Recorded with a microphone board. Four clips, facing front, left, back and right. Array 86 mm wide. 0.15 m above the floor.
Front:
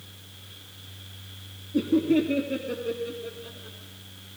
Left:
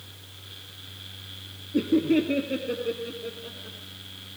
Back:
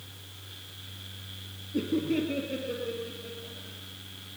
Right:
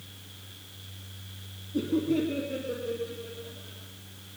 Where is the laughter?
90° left, 3 m; by 3.8 s 70° left, 5.5 m.